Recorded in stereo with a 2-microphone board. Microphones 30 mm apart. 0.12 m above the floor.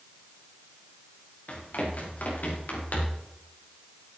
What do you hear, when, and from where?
1.5 s running footsteps: 65° left (ahead or behind), 6 m; by 3.2 s 70° left (ahead or behind), 5 m